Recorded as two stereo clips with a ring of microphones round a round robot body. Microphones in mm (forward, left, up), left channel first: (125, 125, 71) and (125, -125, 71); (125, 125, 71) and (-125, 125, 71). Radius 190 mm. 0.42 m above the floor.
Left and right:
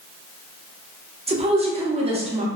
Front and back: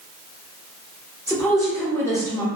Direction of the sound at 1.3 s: 65° right.